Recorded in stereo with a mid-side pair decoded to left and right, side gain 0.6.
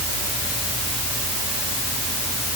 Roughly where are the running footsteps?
No running footsteps in this recording.